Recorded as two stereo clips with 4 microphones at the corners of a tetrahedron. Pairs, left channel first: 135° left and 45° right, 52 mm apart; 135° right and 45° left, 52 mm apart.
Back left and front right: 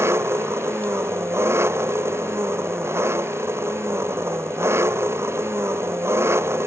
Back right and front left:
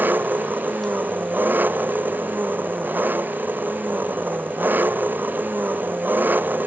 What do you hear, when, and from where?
0.0 s an engine running: 10° right